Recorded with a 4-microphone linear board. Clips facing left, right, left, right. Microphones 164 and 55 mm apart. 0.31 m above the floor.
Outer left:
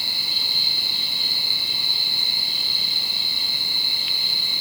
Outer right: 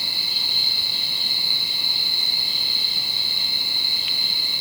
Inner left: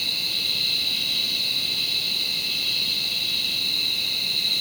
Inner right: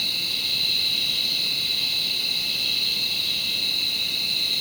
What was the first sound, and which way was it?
Only background noise.